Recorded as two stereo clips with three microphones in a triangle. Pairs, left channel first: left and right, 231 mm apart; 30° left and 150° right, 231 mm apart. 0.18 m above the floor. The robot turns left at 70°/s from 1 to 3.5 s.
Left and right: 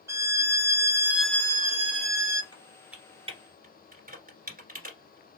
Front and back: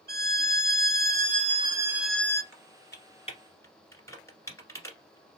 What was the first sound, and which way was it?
A violin, 165° right.